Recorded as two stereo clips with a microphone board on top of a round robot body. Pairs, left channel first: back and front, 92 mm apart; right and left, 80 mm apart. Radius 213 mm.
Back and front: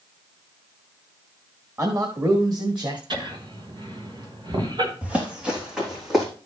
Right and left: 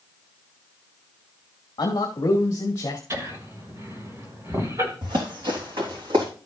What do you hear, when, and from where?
1.8 s a man speaking: 55° right, 1.3 m; by 3.0 s 35° right, 2.5 m
3.1 s laughter: 35° left, 4 m
5.0 s running footsteps: 75° left, 3.5 m; by 6.3 s 90° left, 4 m